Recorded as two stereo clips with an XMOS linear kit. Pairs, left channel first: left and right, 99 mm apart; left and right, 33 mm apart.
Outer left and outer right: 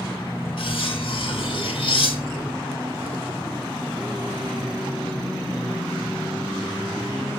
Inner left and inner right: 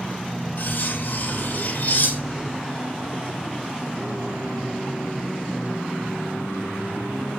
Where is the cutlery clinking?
65° left (ahead or behind), 1.7 m.